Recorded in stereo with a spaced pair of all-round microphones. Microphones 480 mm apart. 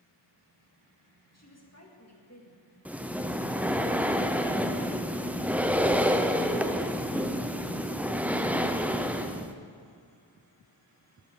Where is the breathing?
5° right (ahead or behind), 0.5 m.